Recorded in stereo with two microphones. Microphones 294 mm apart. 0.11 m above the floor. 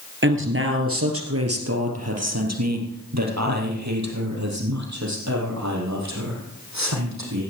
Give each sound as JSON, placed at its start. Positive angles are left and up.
{"t": 0.2, "sound": "a woman speaking", "side_deg": -40, "distance_m": 2.5}